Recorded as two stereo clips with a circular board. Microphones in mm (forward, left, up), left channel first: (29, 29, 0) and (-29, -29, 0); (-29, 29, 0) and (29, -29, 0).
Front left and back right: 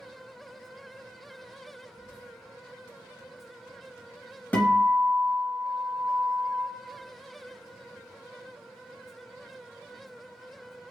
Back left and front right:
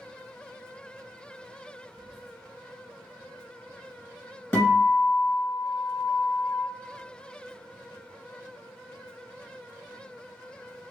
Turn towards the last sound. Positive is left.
turn(degrees=90)